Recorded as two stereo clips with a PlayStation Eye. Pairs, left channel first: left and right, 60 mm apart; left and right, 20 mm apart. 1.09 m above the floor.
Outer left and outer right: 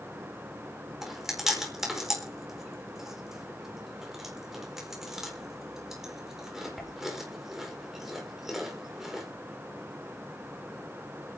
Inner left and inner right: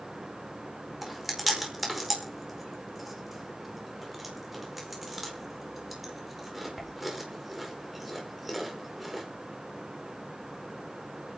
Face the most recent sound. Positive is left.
turn(degrees=-5)  # may be behind; listen again after turning